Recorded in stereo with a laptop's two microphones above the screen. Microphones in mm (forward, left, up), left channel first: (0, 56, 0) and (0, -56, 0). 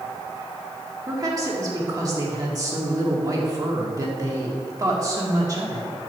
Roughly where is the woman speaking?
Right.